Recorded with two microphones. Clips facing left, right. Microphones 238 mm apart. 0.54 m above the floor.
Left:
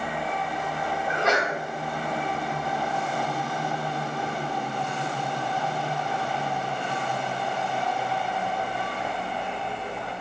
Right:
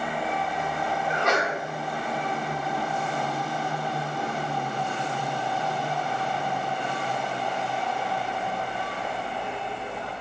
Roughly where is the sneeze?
Centre.